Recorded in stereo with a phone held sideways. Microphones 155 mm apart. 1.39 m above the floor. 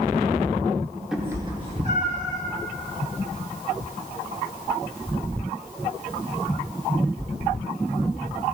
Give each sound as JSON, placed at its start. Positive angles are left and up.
{"t": 1.1, "sound": "a cat meowing", "side_deg": -5, "distance_m": 1.1}